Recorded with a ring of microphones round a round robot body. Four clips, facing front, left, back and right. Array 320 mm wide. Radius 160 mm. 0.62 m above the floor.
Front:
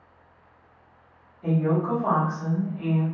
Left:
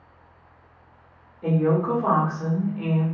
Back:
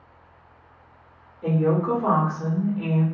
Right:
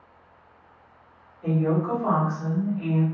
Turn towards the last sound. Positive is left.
turn(degrees=130)